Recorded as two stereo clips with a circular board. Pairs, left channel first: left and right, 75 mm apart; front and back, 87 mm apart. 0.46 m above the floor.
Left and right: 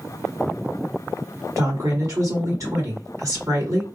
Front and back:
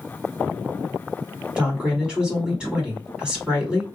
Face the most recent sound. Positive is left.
turn(degrees=-105)